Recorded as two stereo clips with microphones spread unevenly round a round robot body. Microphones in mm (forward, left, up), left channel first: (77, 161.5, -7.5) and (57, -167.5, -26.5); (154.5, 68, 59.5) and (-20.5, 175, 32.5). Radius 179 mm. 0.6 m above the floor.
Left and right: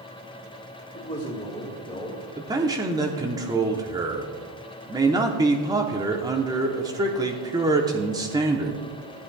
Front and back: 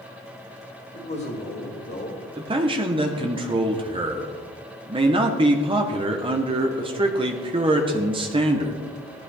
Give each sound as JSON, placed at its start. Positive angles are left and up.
{"t": 0.9, "sound": "a man speaking", "azimuth_deg": 10, "distance_m": 2.5}
{"t": 2.4, "sound": "a man speaking", "azimuth_deg": -165, "distance_m": 1.0}